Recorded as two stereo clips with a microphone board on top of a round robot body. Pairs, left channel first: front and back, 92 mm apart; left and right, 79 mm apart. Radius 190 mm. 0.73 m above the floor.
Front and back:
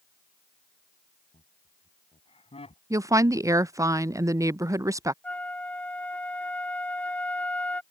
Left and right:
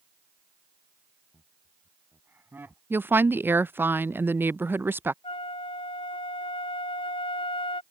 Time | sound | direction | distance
1.3 | laughter | 20° right | ?
2.9 | a woman speaking | 145° right | ?
5.2 | a flute | 80° left | ?